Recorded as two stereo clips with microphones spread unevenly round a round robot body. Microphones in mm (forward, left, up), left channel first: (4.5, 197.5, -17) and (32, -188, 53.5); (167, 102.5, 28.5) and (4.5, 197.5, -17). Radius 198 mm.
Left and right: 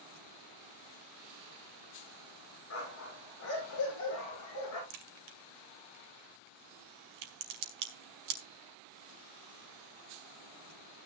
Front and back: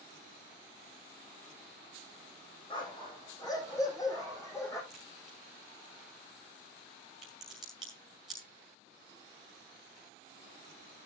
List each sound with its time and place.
2.7 s a dog barking: 35° left, 7.5 m; by 4.8 s 45° left, 8 m
4.9 s a crack: 130° right, 2 m